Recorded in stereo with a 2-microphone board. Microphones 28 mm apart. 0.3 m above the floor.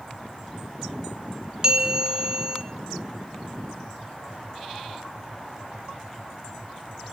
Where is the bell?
25° right (ahead or behind), 0.6 m.